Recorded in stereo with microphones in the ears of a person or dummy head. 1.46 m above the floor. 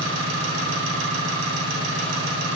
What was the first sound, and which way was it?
An engine running, 60° right (ahead or behind).